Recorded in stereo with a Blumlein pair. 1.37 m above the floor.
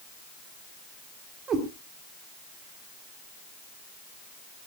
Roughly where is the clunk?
I don't hear a clunk.